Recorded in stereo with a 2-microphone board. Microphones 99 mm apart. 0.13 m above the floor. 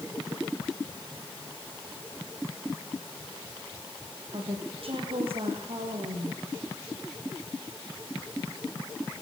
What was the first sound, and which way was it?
A woman speaking, 60° right (ahead or behind).